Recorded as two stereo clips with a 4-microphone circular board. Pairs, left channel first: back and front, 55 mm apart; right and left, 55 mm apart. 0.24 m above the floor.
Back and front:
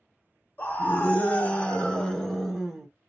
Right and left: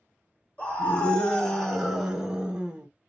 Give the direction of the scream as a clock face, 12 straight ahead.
5 o'clock.